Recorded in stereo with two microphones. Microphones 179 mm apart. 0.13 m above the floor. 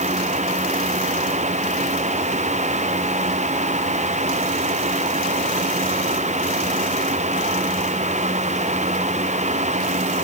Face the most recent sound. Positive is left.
No sound to turn to.